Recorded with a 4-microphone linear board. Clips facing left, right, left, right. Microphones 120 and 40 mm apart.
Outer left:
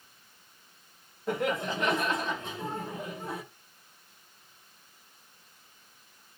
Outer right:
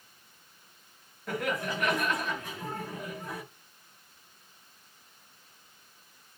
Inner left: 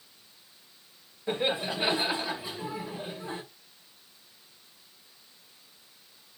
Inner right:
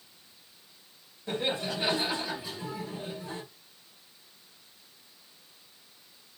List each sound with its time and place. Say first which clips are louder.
1.3 s laughter: outer left 2 dB, inner left 2 dB; 25° left (ahead or behind), 0.9 m